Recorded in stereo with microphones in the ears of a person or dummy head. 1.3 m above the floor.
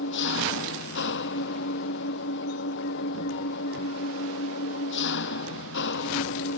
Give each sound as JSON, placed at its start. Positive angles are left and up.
{"t": 0.0, "sound": "an engine running", "side_deg": 65}